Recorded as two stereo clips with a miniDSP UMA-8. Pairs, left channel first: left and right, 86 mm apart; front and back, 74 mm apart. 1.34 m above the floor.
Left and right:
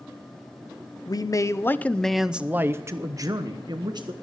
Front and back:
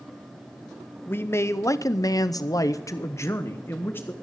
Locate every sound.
1.1 s a man speaking: 60° left, 0.7 m; by 4.1 s 60° right, 1.2 m